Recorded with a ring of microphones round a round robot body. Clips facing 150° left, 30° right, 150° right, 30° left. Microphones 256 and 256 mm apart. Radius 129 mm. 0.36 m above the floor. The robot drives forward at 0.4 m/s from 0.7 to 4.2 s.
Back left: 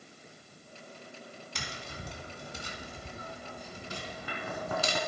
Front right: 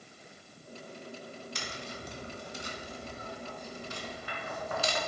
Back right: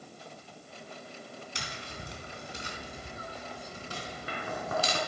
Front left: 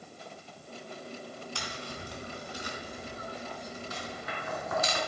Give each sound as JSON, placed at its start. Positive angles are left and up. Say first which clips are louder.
{"t": 1.6, "sound": "tapping", "louder": "front right 2 dB, front left 3 dB", "azimuth_deg": 140, "distance_m": 3.0}